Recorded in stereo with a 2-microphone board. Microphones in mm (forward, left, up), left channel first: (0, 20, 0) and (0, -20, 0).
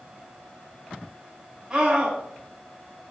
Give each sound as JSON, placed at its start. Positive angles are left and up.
{"t": 1.7, "sound": "a scream", "side_deg": -40, "distance_m": 4.5}